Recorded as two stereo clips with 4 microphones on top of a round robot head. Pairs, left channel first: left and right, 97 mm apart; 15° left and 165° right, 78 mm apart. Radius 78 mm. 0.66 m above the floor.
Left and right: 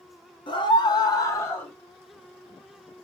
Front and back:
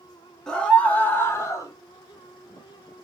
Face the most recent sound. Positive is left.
turn(degrees=25)